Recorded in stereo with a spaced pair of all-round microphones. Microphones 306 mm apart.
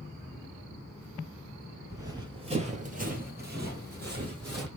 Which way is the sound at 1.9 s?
10° right (ahead or behind).